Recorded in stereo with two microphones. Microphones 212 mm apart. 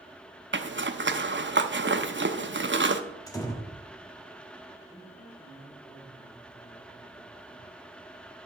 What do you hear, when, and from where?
0.5 s a zipper: 55° right (ahead or behind), 0.8 m
3.3 s a door slam: 15° left (ahead or behind), 1.4 m
4.9 s a man speaking: 55° left (ahead or behind), 5.5 m